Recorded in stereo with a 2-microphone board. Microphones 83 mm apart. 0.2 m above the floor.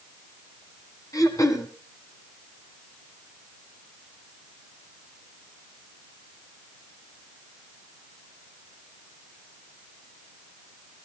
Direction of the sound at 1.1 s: 45° left (ahead or behind).